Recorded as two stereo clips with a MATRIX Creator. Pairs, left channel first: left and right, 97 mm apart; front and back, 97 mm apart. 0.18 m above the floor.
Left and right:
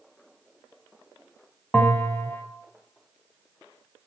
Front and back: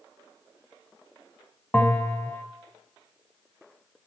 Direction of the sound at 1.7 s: 45° left.